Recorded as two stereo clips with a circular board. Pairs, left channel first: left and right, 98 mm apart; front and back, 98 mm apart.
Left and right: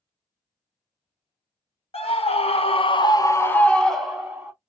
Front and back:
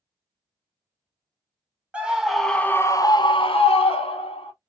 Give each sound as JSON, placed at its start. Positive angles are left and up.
{"t": 1.9, "sound": "a scream", "azimuth_deg": 100, "distance_m": 1.0}